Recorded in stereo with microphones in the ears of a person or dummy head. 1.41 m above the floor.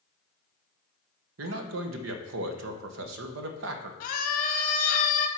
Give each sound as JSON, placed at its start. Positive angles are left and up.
{"t": 1.4, "sound": "a man speaking", "side_deg": -70, "distance_m": 1.0}
{"t": 4.0, "sound": "a scream", "side_deg": 40, "distance_m": 0.7}